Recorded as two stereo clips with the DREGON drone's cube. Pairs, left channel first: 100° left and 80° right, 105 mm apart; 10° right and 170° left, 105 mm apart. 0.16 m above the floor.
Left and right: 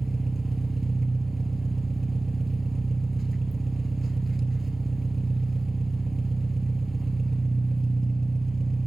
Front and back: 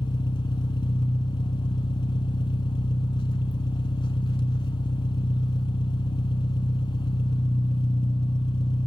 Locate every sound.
0.0 s an engine running: 10° left, 1.0 m